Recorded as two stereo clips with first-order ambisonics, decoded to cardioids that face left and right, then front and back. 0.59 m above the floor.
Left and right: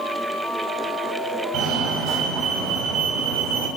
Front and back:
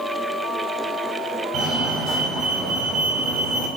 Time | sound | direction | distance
1.5 | a fire alarm | 125° right | 6 m